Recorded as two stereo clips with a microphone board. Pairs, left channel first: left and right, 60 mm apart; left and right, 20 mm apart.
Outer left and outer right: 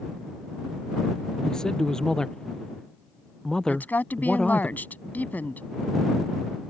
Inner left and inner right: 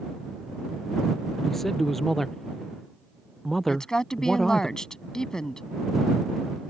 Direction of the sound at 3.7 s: 30° left (ahead or behind).